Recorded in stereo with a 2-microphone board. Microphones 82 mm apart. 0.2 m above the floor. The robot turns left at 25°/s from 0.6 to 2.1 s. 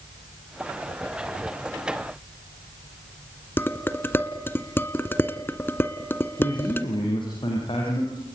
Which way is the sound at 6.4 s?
85° left.